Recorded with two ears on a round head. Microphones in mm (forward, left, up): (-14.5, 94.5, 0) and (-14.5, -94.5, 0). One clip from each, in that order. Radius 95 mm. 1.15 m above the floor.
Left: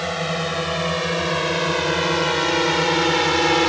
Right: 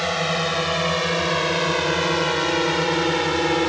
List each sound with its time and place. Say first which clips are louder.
0.0 s a drone: right 2 dB; 15° right (ahead or behind); by 3.7 s 25° left (ahead or behind)